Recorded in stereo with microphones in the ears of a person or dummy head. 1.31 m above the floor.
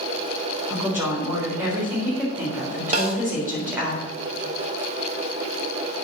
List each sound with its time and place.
0.7 s a woman speaking: 5° right (ahead or behind), 4 m
2.9 s a snare drum: 40° right (ahead or behind), 1.9 m